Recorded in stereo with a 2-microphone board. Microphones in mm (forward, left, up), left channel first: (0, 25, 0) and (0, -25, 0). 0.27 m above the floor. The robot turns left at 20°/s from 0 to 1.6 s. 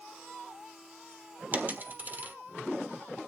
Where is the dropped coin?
35° right (ahead or behind), 1.5 m.